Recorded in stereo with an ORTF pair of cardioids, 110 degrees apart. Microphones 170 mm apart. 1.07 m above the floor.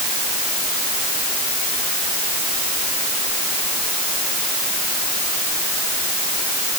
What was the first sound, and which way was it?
Only background noise.